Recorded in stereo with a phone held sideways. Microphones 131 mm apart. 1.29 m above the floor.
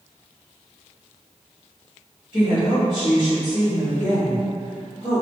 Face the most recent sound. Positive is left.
turn(degrees=50)  # may be behind; listen again after turning